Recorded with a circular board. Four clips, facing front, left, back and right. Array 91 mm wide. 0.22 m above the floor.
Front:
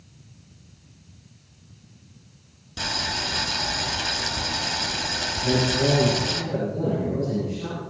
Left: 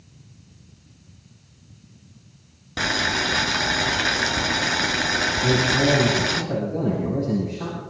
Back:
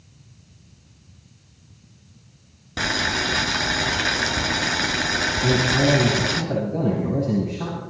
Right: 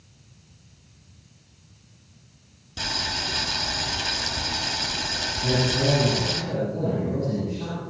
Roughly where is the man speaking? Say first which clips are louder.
Left 2 dB, back 2 dB; behind left.